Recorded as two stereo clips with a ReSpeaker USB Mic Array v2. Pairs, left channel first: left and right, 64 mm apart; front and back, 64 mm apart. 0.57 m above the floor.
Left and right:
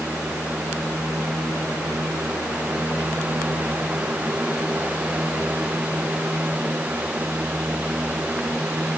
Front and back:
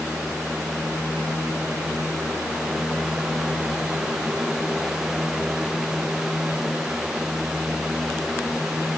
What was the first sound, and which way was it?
Only background noise.